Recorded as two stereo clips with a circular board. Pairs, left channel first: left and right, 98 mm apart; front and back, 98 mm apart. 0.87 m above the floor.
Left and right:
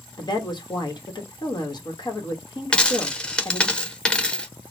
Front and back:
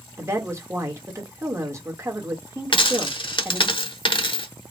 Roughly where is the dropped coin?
Ahead.